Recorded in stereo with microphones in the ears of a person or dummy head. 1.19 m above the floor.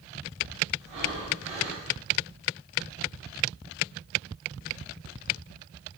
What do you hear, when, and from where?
0.8 s breathing: 35° right (ahead or behind), 1.9 m